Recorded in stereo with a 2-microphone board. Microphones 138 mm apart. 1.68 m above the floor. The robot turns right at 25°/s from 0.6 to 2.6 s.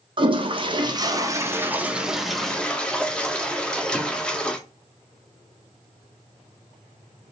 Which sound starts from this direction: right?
A toilet flushing, at 0.2 s.